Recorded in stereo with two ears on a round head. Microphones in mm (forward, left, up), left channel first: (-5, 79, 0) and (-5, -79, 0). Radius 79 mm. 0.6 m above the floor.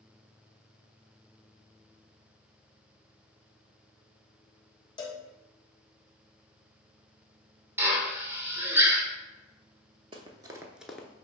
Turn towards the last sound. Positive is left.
turn(degrees=10)  # may be behind; listen again after turning